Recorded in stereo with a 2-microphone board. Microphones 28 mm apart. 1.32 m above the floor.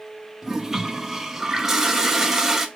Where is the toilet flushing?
15° right (ahead or behind), 0.6 m.